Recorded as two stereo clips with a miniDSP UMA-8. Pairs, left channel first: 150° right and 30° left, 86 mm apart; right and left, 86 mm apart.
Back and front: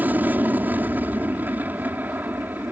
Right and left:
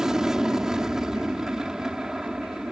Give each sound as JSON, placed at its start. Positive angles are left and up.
{"t": 0.0, "sound": "an aircraft", "azimuth_deg": 20}